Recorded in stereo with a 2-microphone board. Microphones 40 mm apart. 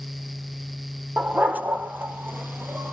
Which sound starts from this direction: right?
A dog barking, at 1.2 s.